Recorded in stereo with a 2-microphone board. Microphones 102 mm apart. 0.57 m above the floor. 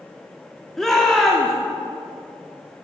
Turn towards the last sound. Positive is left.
turn(degrees=5)  # may be behind; listen again after turning